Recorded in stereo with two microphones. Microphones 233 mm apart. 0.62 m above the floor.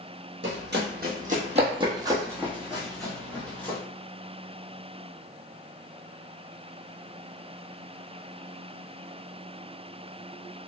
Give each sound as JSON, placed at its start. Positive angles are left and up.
{"t": 0.4, "sound": "running footsteps", "side_deg": -55, "distance_m": 1.1}